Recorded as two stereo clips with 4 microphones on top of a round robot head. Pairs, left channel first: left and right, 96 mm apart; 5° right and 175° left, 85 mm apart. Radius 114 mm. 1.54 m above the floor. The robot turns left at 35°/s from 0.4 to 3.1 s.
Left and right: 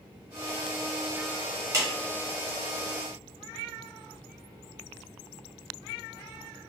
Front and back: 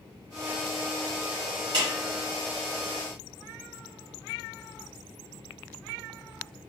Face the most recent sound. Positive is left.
turn(degrees=165)